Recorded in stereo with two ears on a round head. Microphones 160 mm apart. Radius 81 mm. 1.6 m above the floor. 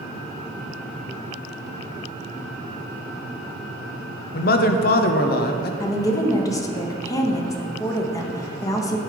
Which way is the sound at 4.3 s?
55° left (ahead or behind).